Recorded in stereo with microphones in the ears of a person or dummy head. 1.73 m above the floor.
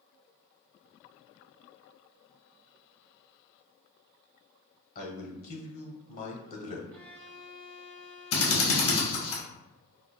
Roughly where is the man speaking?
Left.